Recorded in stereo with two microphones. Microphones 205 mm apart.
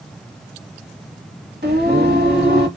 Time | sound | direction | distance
1.6 | singing | 55° right (ahead or behind) | 1.3 m